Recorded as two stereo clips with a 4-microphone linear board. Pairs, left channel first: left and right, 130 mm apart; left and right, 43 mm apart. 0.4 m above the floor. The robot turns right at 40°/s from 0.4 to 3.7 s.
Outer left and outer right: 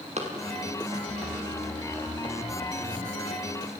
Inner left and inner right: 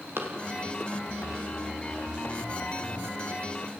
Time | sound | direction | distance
0.2 | running footsteps | 60° right (ahead or behind) | 6 m